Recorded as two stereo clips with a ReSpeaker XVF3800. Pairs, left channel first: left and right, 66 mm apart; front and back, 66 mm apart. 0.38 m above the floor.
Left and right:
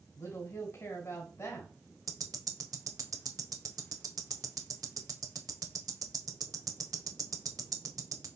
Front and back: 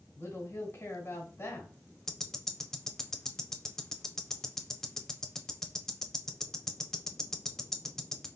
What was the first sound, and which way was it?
A woman speaking, 45° left.